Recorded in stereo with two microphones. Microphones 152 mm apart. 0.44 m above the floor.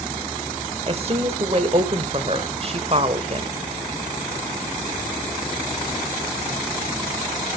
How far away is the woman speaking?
About 1.5 m.